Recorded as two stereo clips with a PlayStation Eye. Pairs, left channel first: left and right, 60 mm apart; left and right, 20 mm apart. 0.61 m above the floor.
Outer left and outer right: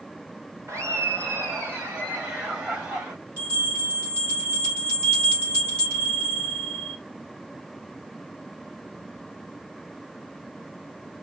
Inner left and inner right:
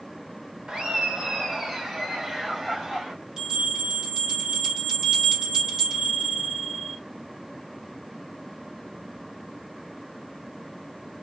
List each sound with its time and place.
0.7 s laughter: 50° right (ahead or behind), 1.6 m; by 3.1 s 20° right (ahead or behind), 3 m
3.4 s a bell: 40° right (ahead or behind), 3.5 m